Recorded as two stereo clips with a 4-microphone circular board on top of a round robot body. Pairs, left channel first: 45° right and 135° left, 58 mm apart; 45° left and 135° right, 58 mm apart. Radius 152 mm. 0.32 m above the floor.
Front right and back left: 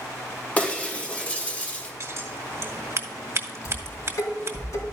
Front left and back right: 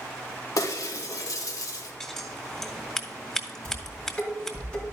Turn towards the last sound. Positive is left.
turn(degrees=-30)